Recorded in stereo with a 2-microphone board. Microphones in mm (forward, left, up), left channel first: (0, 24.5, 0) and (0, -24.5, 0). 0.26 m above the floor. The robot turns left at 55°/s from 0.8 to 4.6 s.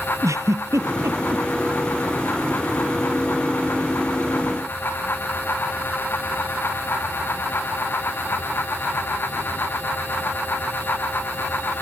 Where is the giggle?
80° right; by 1.4 s 55° right (ahead or behind).